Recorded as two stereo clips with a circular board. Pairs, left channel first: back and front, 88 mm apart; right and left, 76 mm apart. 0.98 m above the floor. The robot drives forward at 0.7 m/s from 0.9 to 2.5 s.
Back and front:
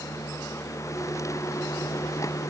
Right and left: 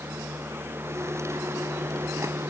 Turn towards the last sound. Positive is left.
No sound to turn to.